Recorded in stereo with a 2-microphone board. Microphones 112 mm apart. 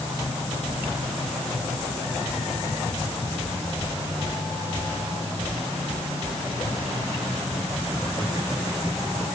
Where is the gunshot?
I don't hear a gunshot.